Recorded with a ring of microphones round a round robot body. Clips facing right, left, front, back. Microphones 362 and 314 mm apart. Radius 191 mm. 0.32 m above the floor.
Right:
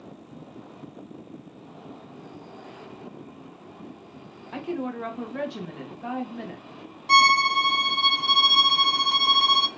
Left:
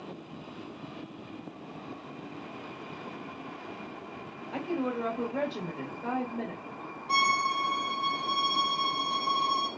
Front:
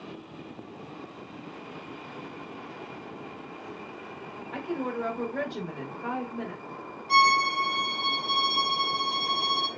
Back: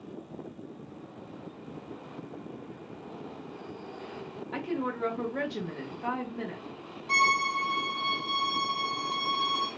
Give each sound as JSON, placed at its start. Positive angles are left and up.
{"t": 4.5, "sound": "a woman speaking", "azimuth_deg": -120, "distance_m": 1.6}
{"t": 7.1, "sound": "a violin", "azimuth_deg": -110, "distance_m": 0.9}